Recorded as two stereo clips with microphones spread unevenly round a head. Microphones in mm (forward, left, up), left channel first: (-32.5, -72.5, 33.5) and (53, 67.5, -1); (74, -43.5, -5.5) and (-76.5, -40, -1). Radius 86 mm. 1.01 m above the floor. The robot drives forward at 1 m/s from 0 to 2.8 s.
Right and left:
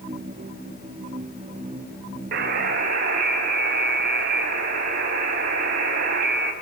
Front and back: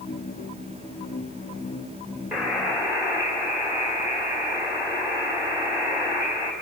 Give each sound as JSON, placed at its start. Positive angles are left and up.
{"t": 2.3, "sound": "a buzzer", "azimuth_deg": 90, "distance_m": 3.0}